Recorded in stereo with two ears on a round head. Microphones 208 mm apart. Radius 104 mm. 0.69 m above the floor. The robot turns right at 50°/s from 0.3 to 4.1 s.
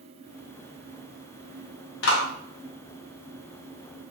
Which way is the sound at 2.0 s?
55° left (ahead or behind).